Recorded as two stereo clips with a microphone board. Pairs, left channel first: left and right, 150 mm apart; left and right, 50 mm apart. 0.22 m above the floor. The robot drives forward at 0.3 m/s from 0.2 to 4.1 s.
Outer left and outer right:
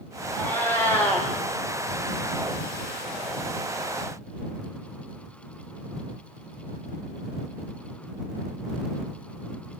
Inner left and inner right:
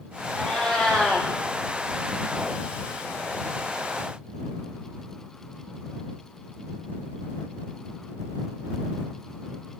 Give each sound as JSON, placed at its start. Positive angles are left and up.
{"t": 0.3, "sound": "a cat meowing", "side_deg": 15, "distance_m": 1.5}